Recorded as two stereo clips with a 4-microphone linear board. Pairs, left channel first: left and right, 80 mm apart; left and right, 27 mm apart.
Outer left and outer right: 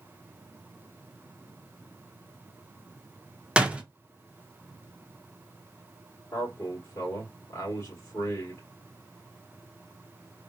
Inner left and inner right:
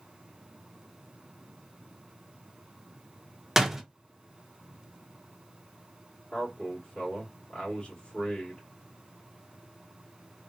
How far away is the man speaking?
About 1.3 m.